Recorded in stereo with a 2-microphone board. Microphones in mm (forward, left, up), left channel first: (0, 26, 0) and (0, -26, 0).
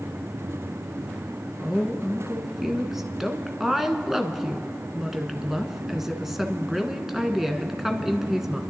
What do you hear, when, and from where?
1.6 s a woman speaking: 5° right (ahead or behind), 1.2 m